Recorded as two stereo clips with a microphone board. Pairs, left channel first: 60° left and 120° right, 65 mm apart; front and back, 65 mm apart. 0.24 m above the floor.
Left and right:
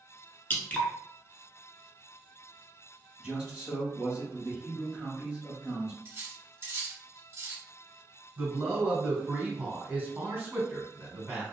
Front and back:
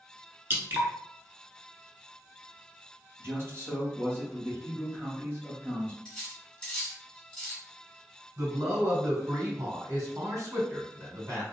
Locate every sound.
0.5 s dripping: 125° left, 0.7 m
3.2 s a man speaking: 170° right, 1.8 m
6.0 s cutlery clinking: 80° right, 1.2 m
8.4 s a man speaking: 170° right, 1.7 m